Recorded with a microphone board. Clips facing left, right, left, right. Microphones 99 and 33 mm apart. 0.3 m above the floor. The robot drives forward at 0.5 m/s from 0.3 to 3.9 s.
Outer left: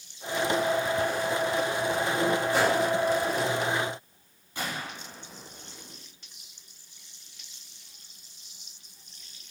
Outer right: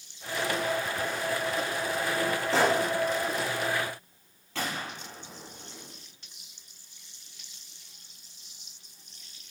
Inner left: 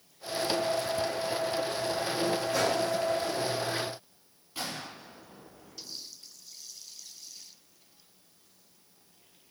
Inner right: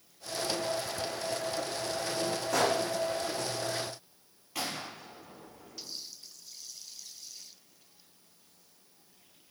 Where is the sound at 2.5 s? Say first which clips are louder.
Outer right 3 dB, inner right 3 dB; 85° right, 6.5 m.